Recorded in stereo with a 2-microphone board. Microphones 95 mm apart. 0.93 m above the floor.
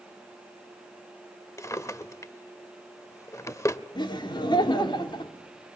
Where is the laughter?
55° left (ahead or behind), 3 m.